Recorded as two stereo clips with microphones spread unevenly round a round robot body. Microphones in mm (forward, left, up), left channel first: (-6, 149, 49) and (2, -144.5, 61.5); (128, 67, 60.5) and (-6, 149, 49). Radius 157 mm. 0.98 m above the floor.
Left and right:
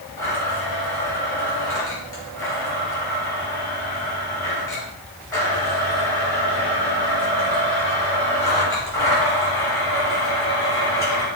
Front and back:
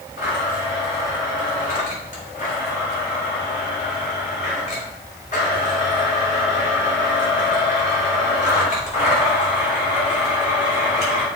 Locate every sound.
0.2 s a blender: 10° left, 4 m